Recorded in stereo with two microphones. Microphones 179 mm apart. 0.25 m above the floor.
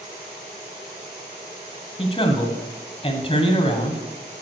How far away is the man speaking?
About 1.4 m.